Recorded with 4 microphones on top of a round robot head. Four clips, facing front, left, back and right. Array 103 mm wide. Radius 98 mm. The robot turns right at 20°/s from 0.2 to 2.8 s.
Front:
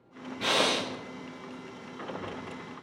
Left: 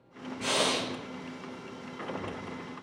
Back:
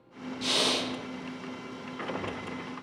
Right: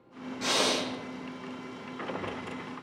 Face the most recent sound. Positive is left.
turn(degrees=30)